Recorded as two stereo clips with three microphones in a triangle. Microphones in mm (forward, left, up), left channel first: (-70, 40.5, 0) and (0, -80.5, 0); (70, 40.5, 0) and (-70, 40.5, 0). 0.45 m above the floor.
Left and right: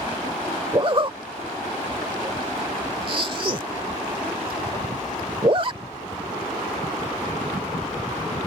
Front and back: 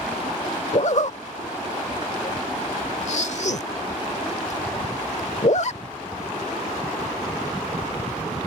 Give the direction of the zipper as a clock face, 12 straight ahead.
1 o'clock.